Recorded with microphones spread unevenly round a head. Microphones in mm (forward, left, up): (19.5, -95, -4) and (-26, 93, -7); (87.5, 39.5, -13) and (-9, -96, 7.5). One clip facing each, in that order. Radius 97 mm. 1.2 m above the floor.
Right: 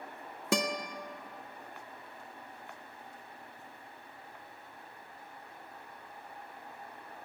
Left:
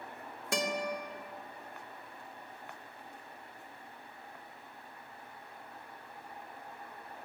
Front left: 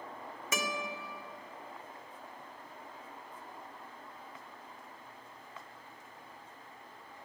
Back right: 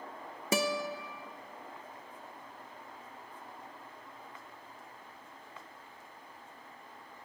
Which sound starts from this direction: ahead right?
A guitar, at 0.5 s.